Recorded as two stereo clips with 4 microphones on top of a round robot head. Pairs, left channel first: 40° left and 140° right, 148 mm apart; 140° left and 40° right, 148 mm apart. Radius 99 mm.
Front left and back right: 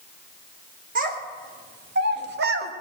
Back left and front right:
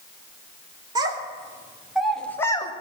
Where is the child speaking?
105° right, 2 m; by 2.7 s 160° right, 1.2 m.